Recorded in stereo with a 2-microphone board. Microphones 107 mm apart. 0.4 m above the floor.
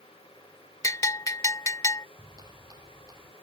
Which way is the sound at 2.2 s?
35° right (ahead or behind).